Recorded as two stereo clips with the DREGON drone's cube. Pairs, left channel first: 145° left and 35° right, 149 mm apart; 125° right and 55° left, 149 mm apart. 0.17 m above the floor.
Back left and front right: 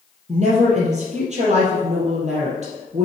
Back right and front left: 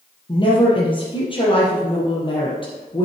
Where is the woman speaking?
70° right, 3.5 m.